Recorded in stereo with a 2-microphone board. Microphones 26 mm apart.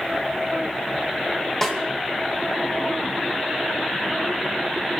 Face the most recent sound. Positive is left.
turn(degrees=10)  # may be behind; listen again after turning